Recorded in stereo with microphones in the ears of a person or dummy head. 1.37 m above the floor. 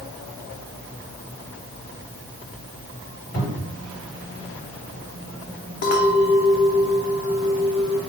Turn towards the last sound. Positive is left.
turn(degrees=55)  # may be behind; listen again after turning